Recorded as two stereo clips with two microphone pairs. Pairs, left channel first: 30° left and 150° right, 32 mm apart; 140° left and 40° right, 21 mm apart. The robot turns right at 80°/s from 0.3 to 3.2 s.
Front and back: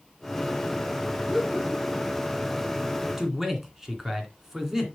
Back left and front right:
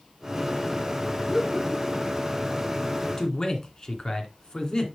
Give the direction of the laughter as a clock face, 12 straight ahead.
6 o'clock.